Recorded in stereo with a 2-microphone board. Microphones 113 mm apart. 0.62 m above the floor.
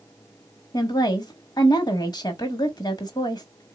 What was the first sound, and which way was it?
A woman speaking, 35° left (ahead or behind).